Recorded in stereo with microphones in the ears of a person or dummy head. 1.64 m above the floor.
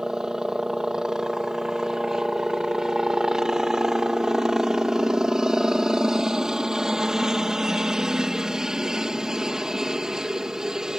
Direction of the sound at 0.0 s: 5° right (ahead or behind).